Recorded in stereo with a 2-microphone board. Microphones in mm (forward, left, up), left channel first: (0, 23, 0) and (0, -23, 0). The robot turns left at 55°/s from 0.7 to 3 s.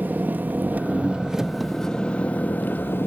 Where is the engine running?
135° right, 0.7 m; by 3.1 s 100° left, 0.7 m.